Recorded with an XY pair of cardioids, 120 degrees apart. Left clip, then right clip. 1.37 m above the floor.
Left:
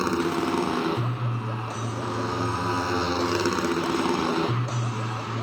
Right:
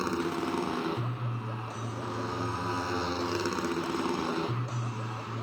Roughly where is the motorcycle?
Ahead left.